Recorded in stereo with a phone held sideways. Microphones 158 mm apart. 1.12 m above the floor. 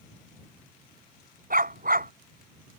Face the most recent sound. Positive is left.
turn(degrees=-65)  # may be behind; listen again after turning